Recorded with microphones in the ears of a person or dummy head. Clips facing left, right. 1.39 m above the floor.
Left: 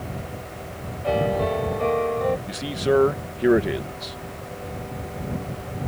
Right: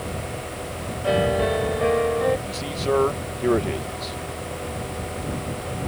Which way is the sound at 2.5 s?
15° left (ahead or behind).